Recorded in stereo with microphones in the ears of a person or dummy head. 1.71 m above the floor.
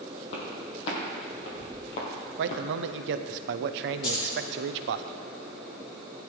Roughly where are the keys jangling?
Left.